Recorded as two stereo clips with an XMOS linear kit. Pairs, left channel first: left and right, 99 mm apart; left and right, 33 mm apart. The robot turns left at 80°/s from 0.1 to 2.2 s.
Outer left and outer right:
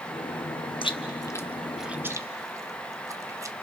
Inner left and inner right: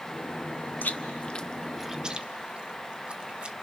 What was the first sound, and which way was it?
Chewing, 60° left (ahead or behind).